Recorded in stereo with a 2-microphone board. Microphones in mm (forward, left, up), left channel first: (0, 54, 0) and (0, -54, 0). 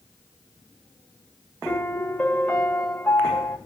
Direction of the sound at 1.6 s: 5° left (ahead or behind).